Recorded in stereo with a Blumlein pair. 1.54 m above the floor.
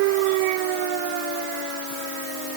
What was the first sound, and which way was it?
Only background noise.